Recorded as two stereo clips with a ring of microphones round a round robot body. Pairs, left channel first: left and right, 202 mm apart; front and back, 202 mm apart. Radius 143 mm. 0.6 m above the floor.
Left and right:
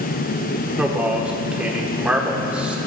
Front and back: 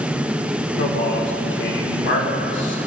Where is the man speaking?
5° right, 1.9 m.